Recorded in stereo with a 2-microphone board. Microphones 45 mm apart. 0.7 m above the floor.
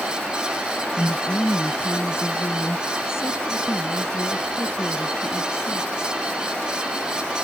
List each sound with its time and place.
1.0 s a woman speaking: 60° left (ahead or behind); by 6.2 s 65° left (ahead or behind)